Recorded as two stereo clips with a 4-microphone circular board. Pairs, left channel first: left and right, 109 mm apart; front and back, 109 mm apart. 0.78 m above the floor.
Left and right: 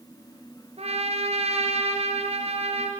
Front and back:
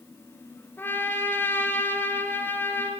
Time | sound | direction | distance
0.8 | a trumpet | 70° right | 4.5 m